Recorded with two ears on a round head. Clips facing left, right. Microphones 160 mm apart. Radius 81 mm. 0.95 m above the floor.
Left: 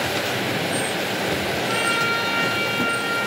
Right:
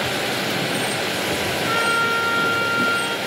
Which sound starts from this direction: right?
A trumpet, at 1.7 s.